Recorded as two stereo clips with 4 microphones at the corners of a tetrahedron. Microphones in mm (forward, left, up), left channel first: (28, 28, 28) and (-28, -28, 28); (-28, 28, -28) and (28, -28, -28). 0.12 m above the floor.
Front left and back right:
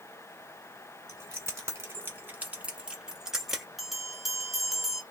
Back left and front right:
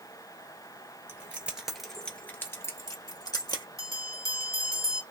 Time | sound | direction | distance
1.1 | keys jangling | 95° right | 1.1 m
3.8 | a bell | 135° left | 1.2 m